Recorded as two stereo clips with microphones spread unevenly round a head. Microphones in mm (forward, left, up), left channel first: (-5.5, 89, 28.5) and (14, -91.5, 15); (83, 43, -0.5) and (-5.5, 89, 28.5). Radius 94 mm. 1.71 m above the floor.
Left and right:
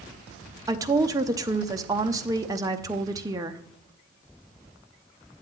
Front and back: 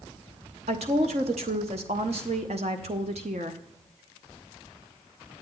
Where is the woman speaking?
155° right, 0.6 m.